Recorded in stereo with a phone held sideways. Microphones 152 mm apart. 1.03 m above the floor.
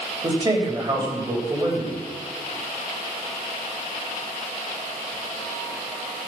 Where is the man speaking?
30° right (ahead or behind), 5 m.